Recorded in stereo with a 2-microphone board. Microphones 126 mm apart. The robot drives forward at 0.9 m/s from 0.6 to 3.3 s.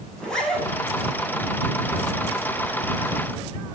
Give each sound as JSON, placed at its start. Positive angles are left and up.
{"t": 0.2, "sound": "a zipper", "side_deg": 5, "distance_m": 9.0}